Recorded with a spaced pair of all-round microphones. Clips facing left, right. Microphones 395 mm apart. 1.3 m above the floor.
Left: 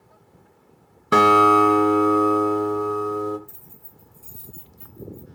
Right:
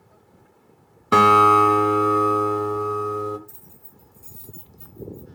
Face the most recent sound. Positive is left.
turn(degrees=70)  # may be behind; listen again after turning